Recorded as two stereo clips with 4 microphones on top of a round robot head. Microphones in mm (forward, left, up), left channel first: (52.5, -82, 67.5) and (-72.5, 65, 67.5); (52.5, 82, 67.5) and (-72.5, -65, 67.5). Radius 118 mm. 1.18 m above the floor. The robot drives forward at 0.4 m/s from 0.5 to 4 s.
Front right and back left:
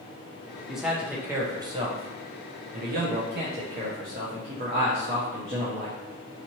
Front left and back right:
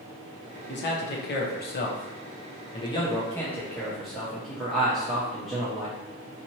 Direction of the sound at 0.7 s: 40° left.